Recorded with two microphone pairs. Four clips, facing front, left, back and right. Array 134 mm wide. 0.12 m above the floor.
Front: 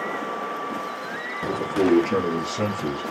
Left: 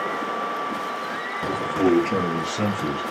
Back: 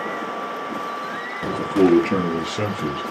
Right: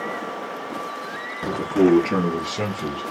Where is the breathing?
No breathing in this recording.